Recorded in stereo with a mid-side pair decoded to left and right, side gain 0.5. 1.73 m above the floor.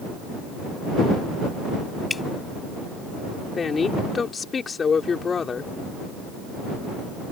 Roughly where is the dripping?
Ahead.